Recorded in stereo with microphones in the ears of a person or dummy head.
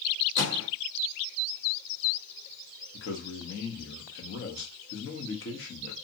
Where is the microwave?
55° left (ahead or behind), 1.2 m.